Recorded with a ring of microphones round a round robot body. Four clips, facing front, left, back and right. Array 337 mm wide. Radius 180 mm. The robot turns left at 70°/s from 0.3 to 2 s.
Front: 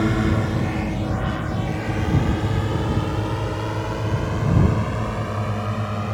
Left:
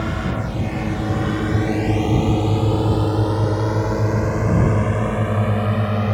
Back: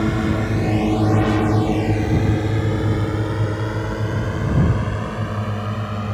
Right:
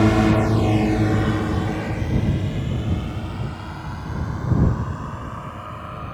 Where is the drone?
90° right; by 6.1 s 95° left.